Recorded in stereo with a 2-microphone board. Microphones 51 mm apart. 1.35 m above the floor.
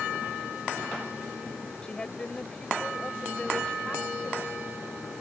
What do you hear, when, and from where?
1.8 s a woman speaking: 20° left (ahead or behind)